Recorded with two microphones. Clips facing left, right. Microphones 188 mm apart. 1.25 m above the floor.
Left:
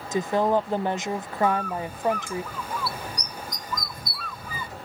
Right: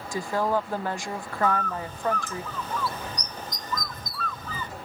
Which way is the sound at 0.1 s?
20° left (ahead or behind).